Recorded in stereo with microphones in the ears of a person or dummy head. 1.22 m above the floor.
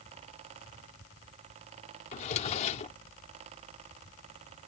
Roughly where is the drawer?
Left.